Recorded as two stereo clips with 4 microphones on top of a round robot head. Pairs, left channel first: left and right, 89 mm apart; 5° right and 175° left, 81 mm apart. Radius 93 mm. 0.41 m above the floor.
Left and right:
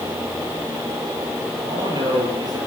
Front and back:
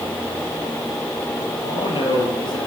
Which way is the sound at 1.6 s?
40° right.